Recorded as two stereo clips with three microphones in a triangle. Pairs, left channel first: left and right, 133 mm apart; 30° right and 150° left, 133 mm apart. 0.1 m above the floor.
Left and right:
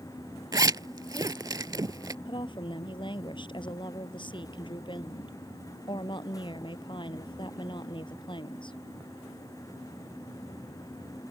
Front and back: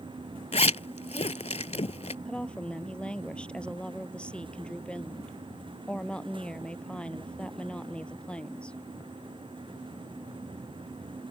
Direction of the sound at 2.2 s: 50° left.